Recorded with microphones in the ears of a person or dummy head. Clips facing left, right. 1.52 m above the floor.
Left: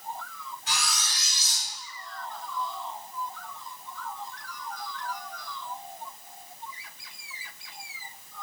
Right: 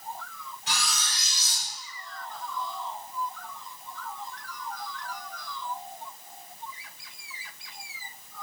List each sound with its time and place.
0.7 s cutlery clinking: 25° right (ahead or behind), 1.2 m